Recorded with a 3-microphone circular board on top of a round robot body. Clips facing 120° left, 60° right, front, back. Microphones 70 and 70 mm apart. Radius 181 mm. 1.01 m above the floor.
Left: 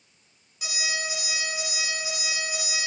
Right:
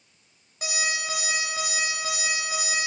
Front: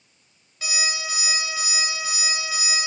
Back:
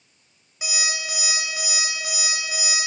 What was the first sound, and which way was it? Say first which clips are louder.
An alarm clock: right 2 dB, front 1 dB; 105° right.